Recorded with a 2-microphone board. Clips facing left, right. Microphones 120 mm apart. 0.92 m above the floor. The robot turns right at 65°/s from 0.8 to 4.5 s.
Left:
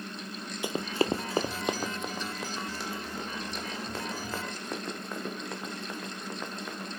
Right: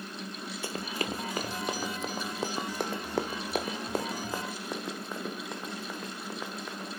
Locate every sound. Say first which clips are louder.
0.6 s running footsteps: left 7 dB; 15° left (ahead or behind), 0.9 m; by 6.9 s 5° right (ahead or behind), 4.5 m